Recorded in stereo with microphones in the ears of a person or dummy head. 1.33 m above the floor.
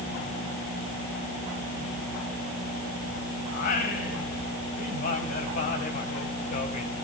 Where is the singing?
45° left (ahead or behind), 2.5 m.